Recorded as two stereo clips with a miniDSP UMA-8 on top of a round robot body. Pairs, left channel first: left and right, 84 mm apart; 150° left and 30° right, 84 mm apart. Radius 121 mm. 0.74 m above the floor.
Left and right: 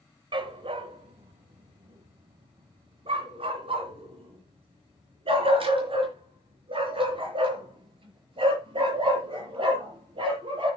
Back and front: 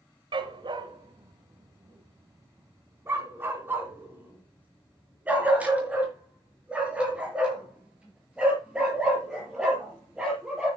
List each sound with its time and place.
0.3 s a dog barking: 60° right, 1.5 m; by 10.7 s 110° right, 7 m